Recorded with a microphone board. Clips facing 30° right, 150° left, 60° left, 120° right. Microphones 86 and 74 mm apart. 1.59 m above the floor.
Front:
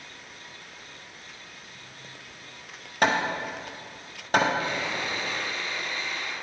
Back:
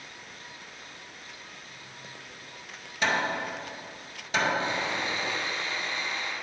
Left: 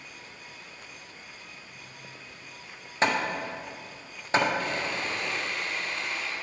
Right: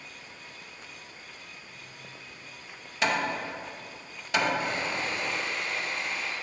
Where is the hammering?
5° left, 0.6 m.